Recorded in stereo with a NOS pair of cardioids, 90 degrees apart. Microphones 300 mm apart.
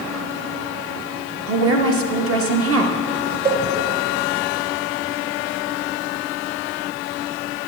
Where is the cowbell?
30° right, 1.4 m.